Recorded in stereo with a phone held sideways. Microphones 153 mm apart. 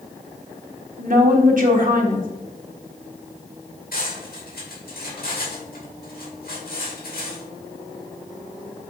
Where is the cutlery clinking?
80° left, 2.5 m.